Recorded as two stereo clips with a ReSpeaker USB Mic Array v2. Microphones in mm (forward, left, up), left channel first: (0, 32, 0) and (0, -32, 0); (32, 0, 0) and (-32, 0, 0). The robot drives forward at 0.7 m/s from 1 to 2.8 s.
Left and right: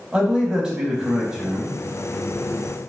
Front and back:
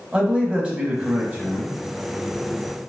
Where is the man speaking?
145° right, 1.0 m; by 1.8 s 165° right, 1.2 m.